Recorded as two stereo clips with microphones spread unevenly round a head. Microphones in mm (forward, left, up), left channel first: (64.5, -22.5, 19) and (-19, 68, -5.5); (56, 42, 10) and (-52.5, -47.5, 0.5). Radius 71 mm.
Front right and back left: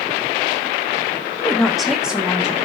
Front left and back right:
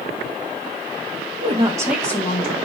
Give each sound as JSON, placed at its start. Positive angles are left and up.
{"t": 1.4, "sound": "a woman speaking", "azimuth_deg": -140, "distance_m": 0.8}